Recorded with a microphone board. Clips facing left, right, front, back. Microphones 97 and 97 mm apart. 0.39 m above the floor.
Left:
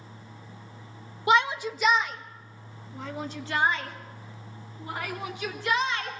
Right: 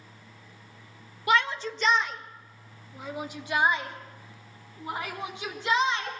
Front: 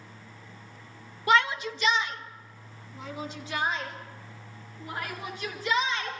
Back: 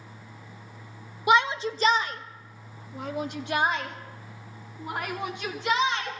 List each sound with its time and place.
1.3 s a shout: 125° left, 0.8 m; by 6.1 s 155° right, 3.5 m